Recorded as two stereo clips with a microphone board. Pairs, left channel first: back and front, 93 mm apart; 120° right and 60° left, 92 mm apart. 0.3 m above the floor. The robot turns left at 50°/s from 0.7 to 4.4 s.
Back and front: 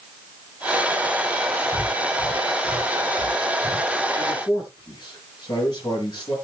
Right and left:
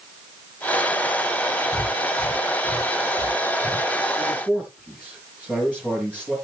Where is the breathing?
35° right, 2.5 m; by 3.9 s 140° right, 2.5 m.